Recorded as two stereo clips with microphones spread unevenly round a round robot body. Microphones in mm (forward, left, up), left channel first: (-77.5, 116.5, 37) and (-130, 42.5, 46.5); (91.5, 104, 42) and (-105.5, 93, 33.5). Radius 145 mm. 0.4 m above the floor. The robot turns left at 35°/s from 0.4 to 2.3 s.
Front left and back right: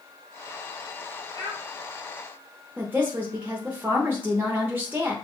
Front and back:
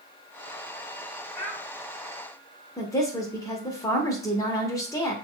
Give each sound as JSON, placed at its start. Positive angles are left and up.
{"t": 1.3, "sound": "a child speaking", "azimuth_deg": -60, "distance_m": 2.0}
{"t": 2.8, "sound": "a woman speaking", "azimuth_deg": -60, "distance_m": 0.8}